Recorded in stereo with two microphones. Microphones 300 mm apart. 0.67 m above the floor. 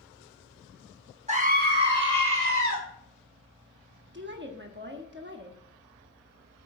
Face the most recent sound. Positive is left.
turn(degrees=-35)  # may be behind; listen again after turning